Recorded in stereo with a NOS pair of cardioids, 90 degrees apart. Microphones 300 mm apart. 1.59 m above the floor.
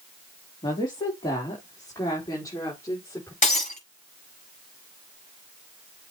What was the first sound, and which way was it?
A woman speaking, 15° left.